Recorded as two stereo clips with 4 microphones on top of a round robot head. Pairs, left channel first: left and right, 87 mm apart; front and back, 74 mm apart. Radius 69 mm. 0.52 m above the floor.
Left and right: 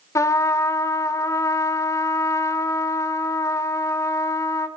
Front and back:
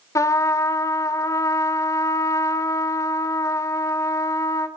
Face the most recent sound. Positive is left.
turn(degrees=40)